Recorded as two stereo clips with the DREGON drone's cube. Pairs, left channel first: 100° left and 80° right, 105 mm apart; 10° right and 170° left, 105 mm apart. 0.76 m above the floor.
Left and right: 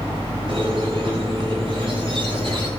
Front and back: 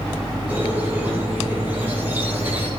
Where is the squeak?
115° right, 4.5 m.